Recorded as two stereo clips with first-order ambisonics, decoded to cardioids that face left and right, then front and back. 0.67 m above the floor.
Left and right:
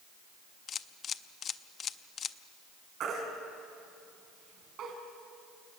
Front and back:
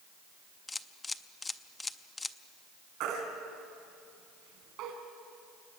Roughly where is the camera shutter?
Left.